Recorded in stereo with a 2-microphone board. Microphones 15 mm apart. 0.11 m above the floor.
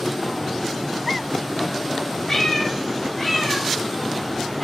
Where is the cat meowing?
30° left (ahead or behind), 0.8 m; by 4.6 s 25° left (ahead or behind), 2.5 m.